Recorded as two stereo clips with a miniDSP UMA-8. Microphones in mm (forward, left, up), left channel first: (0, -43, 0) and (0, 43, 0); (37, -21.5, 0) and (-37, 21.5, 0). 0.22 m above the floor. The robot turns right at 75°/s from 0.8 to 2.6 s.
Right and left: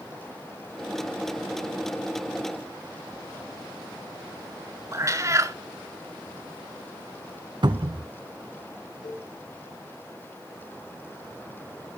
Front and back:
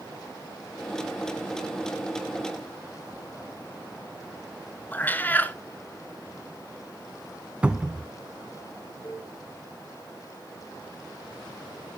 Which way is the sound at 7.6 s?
75° left.